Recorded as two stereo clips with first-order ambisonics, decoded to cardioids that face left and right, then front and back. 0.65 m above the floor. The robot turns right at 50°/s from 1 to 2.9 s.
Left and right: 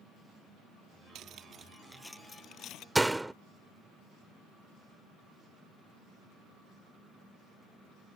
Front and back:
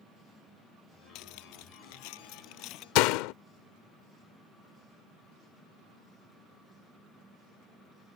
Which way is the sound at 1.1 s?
40° right.